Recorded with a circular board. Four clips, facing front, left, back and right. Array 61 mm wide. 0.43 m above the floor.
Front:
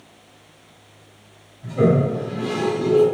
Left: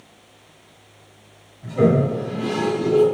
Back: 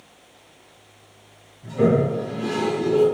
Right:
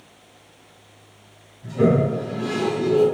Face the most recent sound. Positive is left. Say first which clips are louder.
# left 1 dB, front 1 dB
turn(degrees=60)